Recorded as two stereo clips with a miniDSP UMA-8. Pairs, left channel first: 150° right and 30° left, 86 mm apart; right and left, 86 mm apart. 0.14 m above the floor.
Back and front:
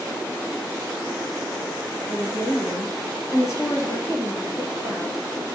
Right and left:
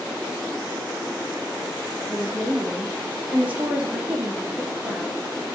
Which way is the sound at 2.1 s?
160° left.